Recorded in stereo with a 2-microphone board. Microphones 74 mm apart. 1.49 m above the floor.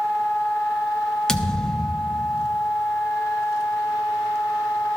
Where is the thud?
10° left (ahead or behind), 0.9 m.